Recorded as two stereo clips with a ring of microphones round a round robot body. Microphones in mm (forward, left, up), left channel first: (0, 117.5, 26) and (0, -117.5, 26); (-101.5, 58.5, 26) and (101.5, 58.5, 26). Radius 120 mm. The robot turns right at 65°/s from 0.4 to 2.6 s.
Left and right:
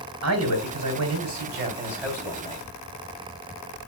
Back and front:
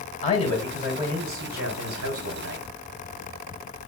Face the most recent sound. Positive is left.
turn(degrees=25)